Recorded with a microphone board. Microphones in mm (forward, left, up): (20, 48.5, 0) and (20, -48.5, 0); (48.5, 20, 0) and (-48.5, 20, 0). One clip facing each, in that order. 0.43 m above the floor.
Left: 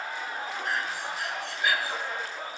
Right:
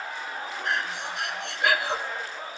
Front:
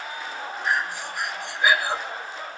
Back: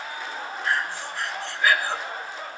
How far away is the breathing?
About 0.6 m.